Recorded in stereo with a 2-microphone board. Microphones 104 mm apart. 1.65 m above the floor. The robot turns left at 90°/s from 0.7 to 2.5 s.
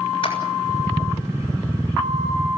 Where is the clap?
50° left (ahead or behind), 7 m.